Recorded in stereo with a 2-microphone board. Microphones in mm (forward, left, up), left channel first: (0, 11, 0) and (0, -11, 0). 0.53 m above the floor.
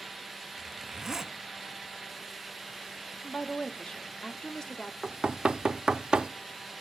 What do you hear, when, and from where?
0.6 s a zipper: 20° right (ahead or behind), 0.9 m
3.2 s a woman speaking: 40° left (ahead or behind), 1.0 m
5.0 s knocking: 45° right (ahead or behind), 0.6 m